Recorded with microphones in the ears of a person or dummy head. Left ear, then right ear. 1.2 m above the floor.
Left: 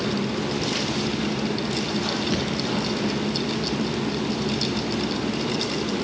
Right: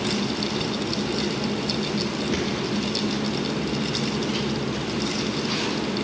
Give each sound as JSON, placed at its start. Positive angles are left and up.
{"t": 2.3, "sound": "a thud", "side_deg": 35, "distance_m": 5.0}